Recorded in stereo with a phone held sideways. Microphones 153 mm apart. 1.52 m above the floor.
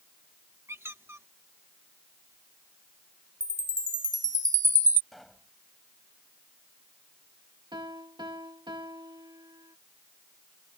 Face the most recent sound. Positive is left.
turn(degrees=-30)  # may be behind; listen again after turning